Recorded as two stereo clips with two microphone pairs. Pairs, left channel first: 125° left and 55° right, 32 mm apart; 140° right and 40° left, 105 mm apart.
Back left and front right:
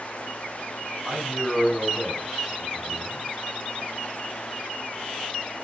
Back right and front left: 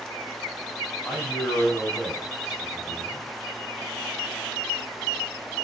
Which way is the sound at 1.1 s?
45° right.